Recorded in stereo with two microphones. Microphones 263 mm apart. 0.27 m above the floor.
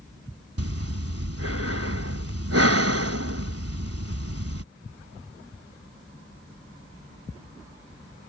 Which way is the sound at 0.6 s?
65° right (ahead or behind).